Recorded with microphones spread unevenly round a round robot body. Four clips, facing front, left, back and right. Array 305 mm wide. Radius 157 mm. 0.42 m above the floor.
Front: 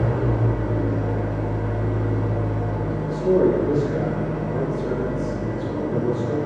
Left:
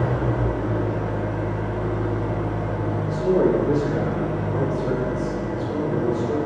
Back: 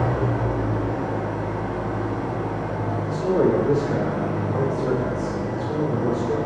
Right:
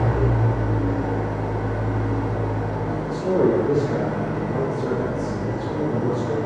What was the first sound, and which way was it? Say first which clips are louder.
An engine running: right 1 dB, even; 30° right.